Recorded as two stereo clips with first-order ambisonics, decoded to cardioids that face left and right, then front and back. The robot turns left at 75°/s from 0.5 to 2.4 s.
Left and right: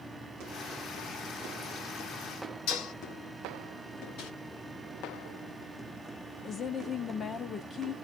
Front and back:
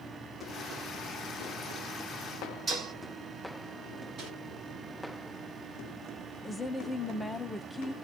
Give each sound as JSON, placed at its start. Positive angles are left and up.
{"t": 2.7, "sound": "dishes clattering", "azimuth_deg": 110, "distance_m": 2.5}
{"t": 4.2, "sound": "crumpling", "azimuth_deg": 125, "distance_m": 2.0}
{"t": 6.4, "sound": "a woman speaking", "azimuth_deg": 75, "distance_m": 0.6}